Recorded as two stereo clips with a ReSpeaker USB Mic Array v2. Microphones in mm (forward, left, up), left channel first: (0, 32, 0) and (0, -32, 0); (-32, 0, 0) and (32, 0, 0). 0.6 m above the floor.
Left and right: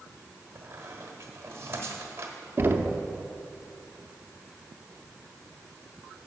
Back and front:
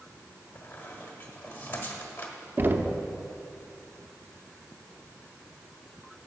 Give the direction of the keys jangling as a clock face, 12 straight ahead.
I don't hear keys jangling.